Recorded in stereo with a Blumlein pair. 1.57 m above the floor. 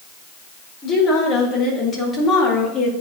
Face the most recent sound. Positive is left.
turn(degrees=20)